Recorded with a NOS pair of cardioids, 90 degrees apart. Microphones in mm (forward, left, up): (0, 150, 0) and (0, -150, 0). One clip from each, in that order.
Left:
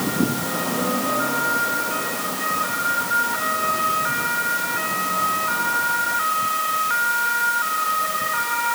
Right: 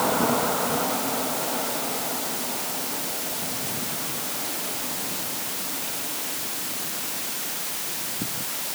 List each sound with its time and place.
Only background noise.